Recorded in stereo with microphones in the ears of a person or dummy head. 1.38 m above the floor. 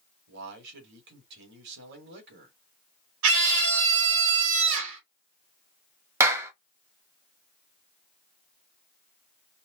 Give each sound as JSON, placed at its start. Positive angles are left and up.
{"t": 0.3, "sound": "a man speaking", "side_deg": -60, "distance_m": 2.5}
{"t": 3.2, "sound": "a scream", "side_deg": -70, "distance_m": 2.5}
{"t": 6.2, "sound": "a clap", "side_deg": -15, "distance_m": 1.1}